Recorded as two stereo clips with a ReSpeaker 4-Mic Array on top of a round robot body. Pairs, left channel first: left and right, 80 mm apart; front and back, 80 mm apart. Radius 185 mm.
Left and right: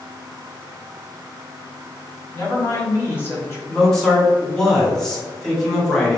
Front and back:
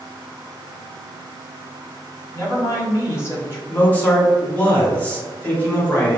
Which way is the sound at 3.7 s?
20° left.